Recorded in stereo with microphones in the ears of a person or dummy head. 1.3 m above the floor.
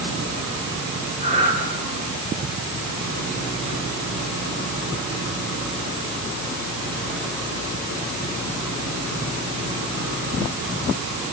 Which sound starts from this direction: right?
Breathing, at 1.2 s.